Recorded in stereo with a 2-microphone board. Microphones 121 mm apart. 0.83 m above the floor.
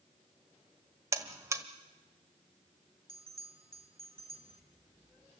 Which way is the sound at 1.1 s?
25° right (ahead or behind).